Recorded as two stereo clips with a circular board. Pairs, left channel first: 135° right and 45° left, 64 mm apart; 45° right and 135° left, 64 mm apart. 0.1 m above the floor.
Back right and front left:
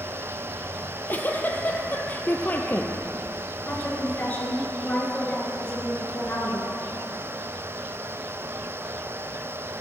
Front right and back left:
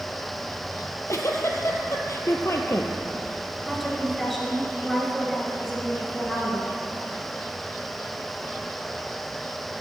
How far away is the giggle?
About 0.8 m.